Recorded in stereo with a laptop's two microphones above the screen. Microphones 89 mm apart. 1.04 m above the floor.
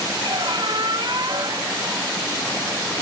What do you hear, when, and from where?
0.2 s a squeak: 55° right (ahead or behind), 1.1 m